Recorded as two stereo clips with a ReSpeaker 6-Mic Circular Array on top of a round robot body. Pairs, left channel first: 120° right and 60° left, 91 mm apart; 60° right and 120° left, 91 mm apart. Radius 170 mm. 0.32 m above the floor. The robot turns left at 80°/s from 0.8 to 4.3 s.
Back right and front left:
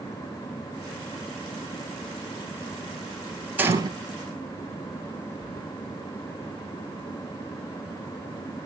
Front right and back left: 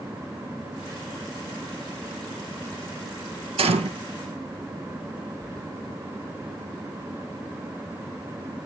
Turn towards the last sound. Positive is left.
turn(degrees=70)